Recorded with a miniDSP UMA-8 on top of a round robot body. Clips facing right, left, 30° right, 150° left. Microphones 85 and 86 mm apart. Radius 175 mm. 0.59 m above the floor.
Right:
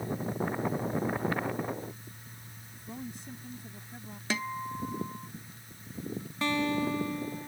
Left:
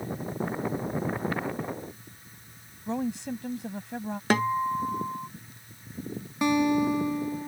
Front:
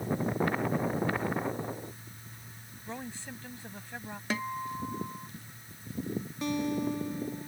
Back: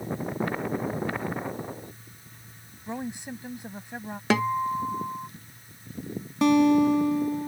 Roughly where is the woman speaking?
Left.